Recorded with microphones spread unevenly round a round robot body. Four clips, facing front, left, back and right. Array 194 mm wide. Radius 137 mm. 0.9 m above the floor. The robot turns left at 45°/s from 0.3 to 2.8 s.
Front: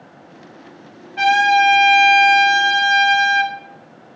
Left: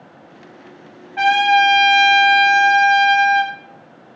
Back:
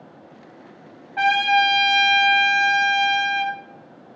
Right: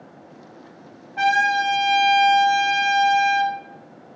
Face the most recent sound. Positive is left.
turn(degrees=60)